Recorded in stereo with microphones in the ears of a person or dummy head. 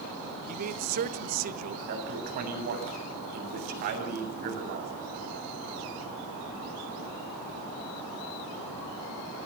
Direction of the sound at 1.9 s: 50° right (ahead or behind).